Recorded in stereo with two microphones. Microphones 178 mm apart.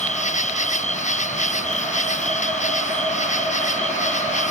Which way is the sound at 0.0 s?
45° left (ahead or behind).